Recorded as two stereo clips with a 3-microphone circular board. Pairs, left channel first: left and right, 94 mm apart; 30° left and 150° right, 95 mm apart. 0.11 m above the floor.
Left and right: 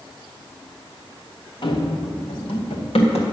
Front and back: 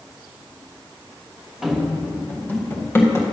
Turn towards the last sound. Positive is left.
turn(degrees=90)